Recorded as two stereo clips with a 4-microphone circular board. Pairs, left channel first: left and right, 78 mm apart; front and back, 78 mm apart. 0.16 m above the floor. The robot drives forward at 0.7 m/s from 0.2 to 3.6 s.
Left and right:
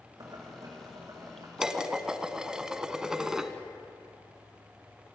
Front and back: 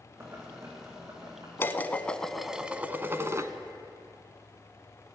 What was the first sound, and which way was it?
Boiling, 125° right.